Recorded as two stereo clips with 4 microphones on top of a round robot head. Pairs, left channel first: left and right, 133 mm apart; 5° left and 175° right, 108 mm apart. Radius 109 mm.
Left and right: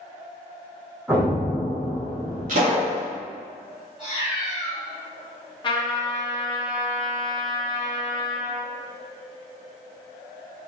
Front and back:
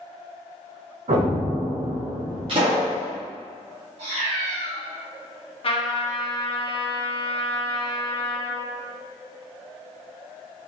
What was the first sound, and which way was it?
An explosion, 170° right.